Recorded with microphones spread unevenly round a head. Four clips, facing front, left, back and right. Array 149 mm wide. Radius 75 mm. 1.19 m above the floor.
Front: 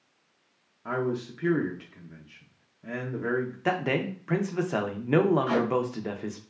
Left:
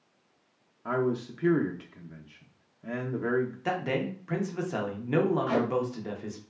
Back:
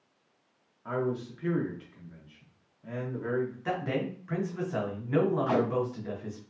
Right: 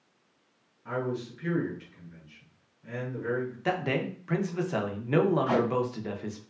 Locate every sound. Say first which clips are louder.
0.8 s a man speaking: left 4 dB, front 2 dB; 45° left, 0.5 m
3.6 s a man speaking: right 1 dB, front 4 dB; 15° right, 0.7 m
5.5 s tape being pulled: right 1 dB, front 1 dB; 105° right, 1.7 m